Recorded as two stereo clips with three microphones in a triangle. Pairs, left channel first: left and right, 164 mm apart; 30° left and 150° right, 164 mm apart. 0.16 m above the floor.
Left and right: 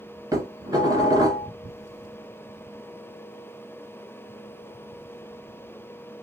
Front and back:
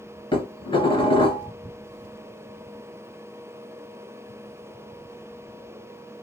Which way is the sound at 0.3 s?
25° right.